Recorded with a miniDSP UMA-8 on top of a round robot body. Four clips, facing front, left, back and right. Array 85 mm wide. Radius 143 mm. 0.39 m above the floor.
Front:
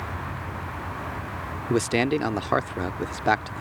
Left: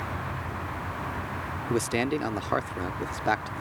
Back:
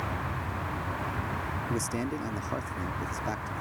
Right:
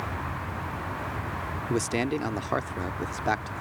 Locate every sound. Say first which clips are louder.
1.7 s a man speaking: left 1 dB, front 12 dB; 5° left